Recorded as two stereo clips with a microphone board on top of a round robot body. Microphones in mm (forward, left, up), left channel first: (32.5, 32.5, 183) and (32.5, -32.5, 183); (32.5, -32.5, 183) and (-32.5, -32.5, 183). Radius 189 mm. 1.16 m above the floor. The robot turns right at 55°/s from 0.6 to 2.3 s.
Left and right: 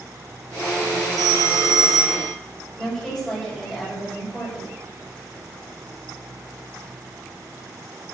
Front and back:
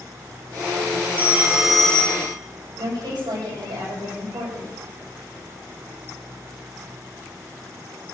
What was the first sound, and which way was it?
A phone ringing, 120° right.